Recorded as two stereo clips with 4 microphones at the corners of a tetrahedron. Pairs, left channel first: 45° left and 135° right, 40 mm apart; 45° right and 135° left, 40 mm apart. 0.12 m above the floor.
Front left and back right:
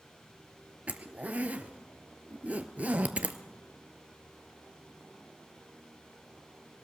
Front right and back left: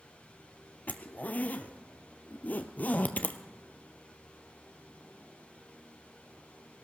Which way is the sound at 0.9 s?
90° right.